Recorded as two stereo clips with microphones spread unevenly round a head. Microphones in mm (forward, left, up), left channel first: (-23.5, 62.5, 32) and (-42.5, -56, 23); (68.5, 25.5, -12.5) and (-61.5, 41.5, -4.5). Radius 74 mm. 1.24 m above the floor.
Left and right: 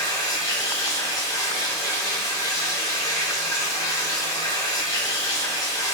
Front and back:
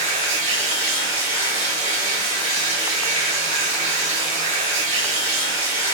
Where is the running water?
140° left, 1.1 m.